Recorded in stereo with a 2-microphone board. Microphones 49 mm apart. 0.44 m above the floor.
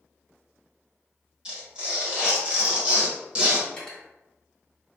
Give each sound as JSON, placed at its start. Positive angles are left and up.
{"t": 1.4, "sound": "tearing paper", "side_deg": -20, "distance_m": 0.9}
{"t": 3.7, "sound": "cutlery clinking", "side_deg": 15, "distance_m": 1.3}